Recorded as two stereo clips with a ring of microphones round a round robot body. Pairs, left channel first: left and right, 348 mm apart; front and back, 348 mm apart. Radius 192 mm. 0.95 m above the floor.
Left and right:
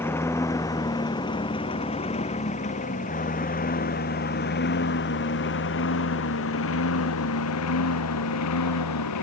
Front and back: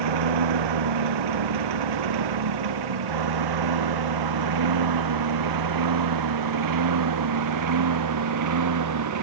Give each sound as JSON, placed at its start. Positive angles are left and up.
{"t": 0.0, "sound": "a lawn mower", "azimuth_deg": 175}